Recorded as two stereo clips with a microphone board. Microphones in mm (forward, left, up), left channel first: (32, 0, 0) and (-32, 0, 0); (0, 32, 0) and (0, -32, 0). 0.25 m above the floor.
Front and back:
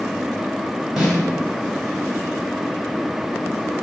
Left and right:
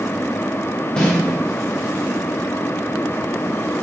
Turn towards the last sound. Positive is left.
turn(degrees=110)